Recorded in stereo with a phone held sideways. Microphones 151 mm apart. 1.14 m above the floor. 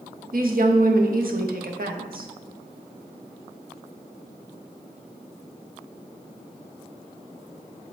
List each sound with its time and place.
0.3 s a woman speaking: 75° right (ahead or behind), 1.0 m